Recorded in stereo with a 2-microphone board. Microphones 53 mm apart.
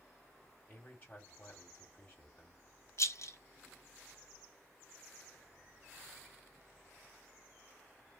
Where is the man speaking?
30° left (ahead or behind), 1.7 m.